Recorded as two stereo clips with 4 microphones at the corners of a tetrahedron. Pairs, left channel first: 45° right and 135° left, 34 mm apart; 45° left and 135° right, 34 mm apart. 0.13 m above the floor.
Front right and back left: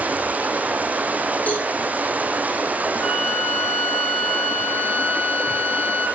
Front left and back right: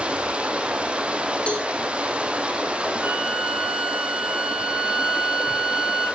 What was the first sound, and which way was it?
Running water, 170° left.